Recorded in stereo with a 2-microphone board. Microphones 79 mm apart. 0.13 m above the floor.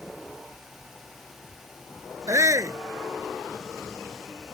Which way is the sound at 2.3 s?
45° right (ahead or behind).